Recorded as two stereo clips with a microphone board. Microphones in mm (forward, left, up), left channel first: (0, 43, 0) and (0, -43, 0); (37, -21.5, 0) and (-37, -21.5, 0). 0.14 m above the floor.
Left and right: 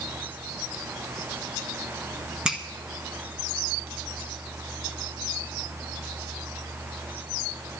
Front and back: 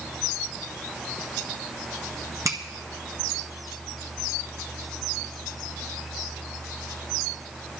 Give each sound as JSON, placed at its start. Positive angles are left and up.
{"t": 2.5, "sound": "a finger snap", "azimuth_deg": -165, "distance_m": 1.6}